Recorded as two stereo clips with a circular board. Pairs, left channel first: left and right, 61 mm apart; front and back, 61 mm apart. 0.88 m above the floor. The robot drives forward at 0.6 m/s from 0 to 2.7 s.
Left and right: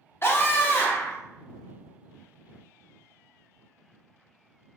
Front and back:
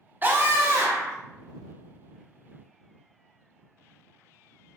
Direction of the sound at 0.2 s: 130° left.